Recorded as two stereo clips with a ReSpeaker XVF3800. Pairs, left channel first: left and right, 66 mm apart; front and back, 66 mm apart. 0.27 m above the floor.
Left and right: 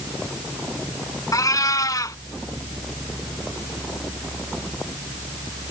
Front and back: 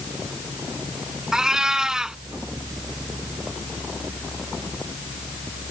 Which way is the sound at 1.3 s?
100° left.